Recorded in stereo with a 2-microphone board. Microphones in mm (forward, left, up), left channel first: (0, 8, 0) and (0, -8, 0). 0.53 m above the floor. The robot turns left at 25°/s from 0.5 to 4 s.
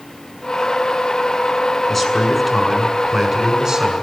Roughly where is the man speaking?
Ahead.